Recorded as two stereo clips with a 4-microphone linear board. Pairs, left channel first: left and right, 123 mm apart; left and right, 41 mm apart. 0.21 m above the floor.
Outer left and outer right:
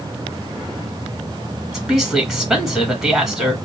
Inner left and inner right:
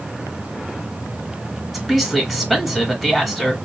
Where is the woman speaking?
Centre (ahead or behind), 1.7 m.